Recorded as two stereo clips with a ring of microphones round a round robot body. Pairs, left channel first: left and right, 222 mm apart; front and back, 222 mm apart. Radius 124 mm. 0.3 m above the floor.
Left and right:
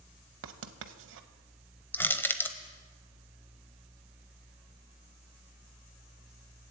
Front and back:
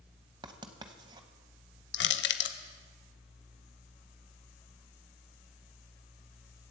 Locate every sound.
0.4 s writing: 110° right, 0.8 m
1.9 s crushing: 10° left, 0.9 m